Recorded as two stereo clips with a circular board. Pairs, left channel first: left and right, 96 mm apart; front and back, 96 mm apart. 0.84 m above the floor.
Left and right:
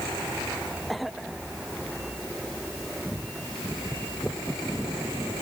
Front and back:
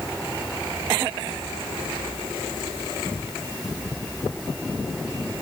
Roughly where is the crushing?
No crushing in this recording.